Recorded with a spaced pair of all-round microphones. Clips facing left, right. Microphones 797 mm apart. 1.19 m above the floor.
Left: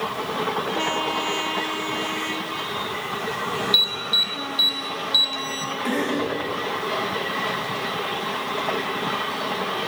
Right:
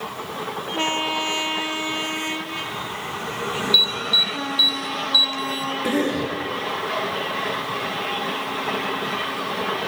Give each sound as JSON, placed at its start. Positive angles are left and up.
{"t": 3.7, "sound": "an alarm", "side_deg": 15, "distance_m": 0.8}
{"t": 5.8, "sound": "a cough", "side_deg": -75, "distance_m": 1.3}